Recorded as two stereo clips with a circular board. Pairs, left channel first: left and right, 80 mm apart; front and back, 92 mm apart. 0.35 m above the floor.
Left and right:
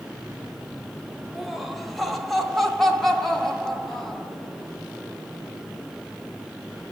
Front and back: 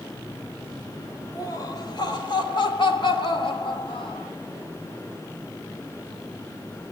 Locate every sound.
1.4 s laughter: 5° right, 1.2 m; by 4.3 s 5° left, 2.5 m